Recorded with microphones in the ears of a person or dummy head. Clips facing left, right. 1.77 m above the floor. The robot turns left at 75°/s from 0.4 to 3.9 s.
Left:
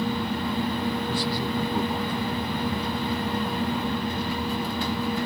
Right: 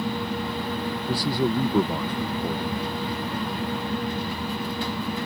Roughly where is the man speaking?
Ahead right.